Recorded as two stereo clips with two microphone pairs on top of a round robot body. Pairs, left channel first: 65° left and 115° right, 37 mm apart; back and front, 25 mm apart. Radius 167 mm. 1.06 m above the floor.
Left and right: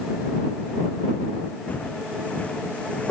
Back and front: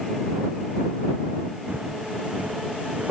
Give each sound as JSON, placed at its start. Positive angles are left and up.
{"t": 1.7, "sound": "footsteps", "azimuth_deg": 15}